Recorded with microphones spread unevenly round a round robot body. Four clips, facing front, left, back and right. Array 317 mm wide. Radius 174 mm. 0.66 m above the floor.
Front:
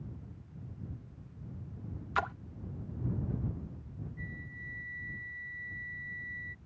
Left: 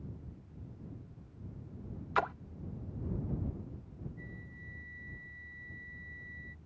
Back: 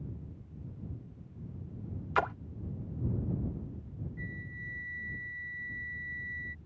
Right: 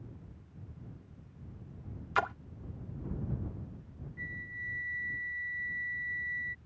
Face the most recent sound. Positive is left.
turn(degrees=-155)